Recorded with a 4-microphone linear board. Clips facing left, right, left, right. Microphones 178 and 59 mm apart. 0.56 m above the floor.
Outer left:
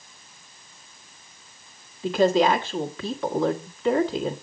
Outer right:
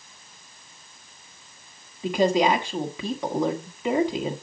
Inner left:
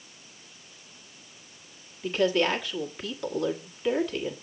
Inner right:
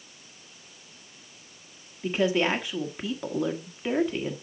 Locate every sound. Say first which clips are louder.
2.0 s a woman speaking: outer left 1 dB, even; 15° right (ahead or behind), 1.2 m